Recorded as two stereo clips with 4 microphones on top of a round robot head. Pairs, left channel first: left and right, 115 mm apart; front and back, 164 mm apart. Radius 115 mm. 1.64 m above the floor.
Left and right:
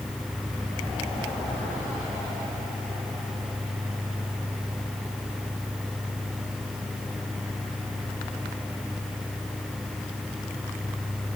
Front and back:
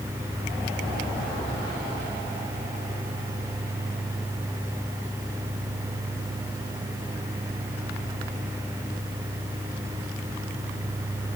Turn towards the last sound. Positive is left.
No sound to turn to.